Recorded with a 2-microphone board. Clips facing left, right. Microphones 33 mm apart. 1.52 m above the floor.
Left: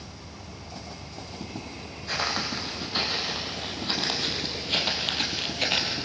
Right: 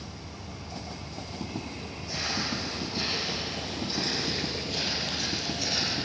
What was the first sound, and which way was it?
Footsteps, 60° left (ahead or behind).